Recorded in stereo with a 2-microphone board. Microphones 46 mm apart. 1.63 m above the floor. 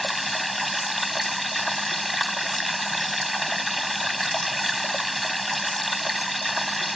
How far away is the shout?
I don't hear a shout.